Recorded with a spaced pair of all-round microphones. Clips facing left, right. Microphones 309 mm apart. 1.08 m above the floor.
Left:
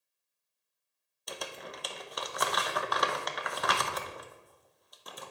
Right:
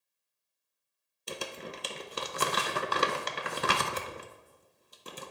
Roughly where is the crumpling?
Right.